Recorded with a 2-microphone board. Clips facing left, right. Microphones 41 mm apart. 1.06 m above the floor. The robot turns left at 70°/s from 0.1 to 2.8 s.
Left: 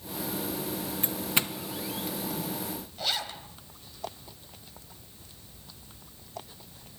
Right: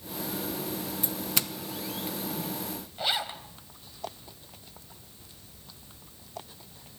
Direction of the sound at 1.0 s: 40° left (ahead or behind).